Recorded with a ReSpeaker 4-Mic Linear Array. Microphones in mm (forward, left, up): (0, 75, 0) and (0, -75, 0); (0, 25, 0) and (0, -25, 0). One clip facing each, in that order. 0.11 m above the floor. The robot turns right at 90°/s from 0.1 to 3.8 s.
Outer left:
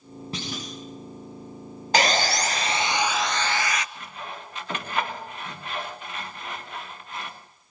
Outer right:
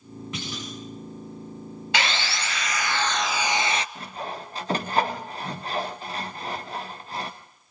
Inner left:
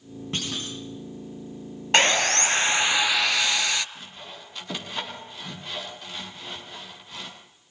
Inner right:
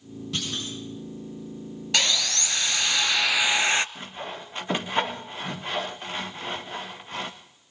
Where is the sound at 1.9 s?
65° left, 0.7 m; by 3.9 s 130° right, 0.7 m.